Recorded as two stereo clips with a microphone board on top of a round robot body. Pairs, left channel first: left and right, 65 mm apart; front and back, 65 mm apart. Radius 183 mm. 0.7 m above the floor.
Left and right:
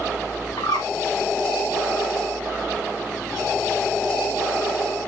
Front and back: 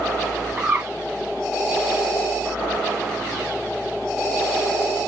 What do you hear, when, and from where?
0.6 s a bird: 115° left, 1.3 m